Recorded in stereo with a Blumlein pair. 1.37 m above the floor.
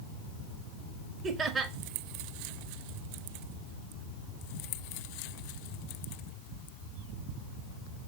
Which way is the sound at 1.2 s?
25° right.